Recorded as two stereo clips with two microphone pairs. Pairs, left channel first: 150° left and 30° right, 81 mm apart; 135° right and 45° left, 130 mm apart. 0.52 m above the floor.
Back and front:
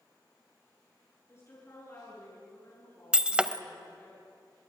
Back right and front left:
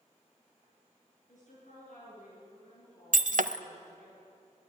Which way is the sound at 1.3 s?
155° right.